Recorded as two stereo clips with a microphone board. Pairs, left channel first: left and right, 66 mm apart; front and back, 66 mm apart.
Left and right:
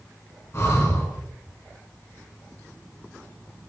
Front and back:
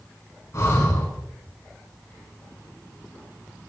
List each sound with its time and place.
0.5 s breathing: 40° left, 3.5 m